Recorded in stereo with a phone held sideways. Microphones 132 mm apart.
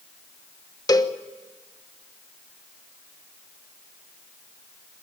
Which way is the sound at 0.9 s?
30° left (ahead or behind).